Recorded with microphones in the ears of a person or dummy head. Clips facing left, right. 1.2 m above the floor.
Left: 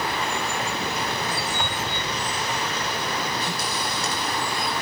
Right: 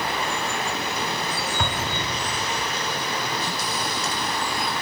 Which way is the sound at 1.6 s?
70° right (ahead or behind).